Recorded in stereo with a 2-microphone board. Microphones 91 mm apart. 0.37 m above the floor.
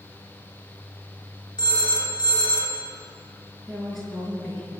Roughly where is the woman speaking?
Centre.